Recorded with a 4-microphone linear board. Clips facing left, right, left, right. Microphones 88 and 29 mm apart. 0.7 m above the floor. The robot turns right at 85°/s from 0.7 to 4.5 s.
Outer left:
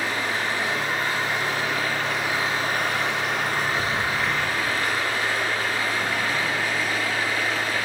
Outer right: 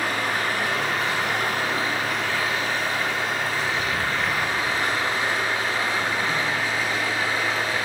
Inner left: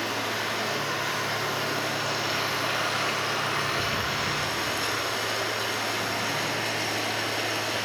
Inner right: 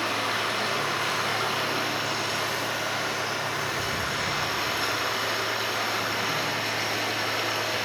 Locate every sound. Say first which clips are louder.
0.0 s running water: outer right 1 dB, inner right 2 dB; 120° right, 2 m; by 7.9 s 160° right, 2 m